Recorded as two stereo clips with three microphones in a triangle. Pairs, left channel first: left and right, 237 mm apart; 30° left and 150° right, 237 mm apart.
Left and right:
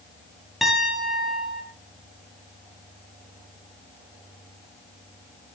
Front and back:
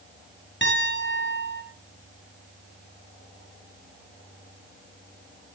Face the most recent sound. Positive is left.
turn(degrees=0)